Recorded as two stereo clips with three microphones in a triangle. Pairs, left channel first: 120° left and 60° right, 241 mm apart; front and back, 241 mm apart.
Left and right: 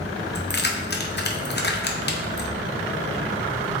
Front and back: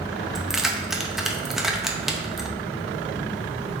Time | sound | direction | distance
0.3 | keys jangling | 90° left | 0.6 m